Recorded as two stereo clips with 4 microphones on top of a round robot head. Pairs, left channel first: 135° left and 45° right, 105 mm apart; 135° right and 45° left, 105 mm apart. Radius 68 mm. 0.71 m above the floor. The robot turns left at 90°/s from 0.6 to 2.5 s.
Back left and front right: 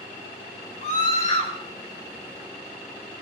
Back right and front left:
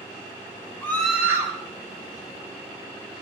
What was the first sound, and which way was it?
A scream, 160° left.